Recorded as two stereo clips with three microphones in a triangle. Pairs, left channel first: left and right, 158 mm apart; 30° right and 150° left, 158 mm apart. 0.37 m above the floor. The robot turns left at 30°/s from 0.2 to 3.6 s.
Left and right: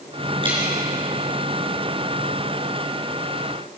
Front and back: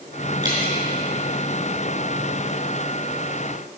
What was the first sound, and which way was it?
Dripping, 145° right.